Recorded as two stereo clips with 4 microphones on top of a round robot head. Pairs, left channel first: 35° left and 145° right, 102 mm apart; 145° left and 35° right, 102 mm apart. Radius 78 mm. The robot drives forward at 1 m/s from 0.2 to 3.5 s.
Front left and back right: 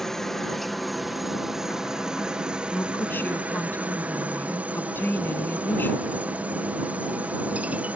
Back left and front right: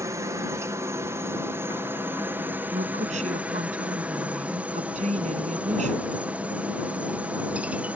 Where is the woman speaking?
35° right; by 6.2 s 40° right.